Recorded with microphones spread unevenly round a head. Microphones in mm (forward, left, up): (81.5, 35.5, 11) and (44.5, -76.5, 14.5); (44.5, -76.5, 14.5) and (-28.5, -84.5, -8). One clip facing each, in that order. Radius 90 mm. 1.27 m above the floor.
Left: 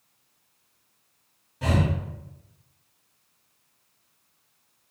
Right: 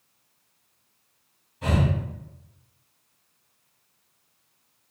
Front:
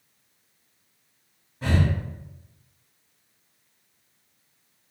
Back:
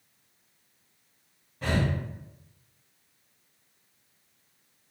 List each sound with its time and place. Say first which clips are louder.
1.6 s breathing: even, front 3 dB; 95° left, 1.8 m